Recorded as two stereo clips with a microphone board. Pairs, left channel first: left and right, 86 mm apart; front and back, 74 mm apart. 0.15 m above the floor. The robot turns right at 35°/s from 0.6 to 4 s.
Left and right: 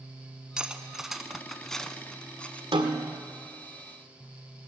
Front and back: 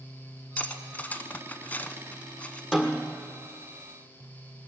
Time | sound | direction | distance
0.6 | cutlery clinking | 30° right | 0.7 m
2.7 | a snare drum | 90° right | 1.7 m